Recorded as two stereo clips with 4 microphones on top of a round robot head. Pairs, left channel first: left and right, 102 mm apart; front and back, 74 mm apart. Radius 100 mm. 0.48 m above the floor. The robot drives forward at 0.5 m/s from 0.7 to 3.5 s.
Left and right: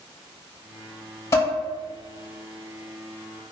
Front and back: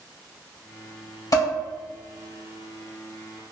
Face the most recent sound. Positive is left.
turn(degrees=60)